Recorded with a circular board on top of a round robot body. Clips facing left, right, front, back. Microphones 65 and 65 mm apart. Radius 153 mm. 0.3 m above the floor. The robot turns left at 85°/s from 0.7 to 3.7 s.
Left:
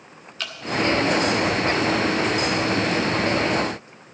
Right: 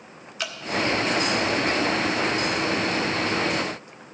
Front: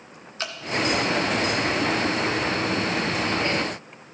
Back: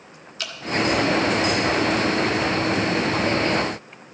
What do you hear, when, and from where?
0.4 s dripping: 15° right, 1.4 m